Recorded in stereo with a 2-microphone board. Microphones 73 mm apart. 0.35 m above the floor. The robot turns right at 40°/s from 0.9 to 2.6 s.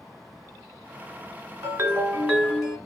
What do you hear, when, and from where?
1.6 s a ringtone: 45° right, 1.1 m; by 2.8 s 5° right, 1.1 m